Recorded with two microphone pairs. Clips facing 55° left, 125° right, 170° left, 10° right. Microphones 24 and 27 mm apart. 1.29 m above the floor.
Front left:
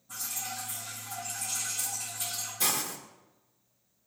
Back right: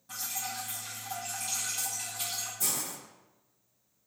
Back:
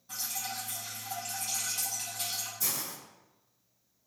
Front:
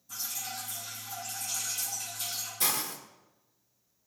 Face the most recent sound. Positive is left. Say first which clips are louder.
# front left 7 dB, front 5 dB
turn(degrees=20)